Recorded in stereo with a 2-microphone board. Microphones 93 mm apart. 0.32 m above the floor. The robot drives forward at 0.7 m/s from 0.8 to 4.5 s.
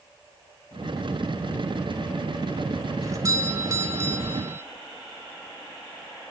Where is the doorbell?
35° right (ahead or behind), 1.6 m; by 4.6 s 25° right (ahead or behind), 2 m.